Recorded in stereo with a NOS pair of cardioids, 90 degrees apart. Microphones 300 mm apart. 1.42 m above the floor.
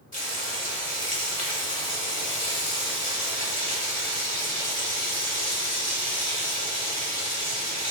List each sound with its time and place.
0.1 s frying: 25° left, 1.7 m